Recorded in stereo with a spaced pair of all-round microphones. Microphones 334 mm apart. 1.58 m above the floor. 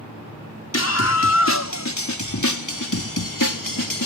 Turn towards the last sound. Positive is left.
turn(degrees=75)  # may be behind; listen again after turning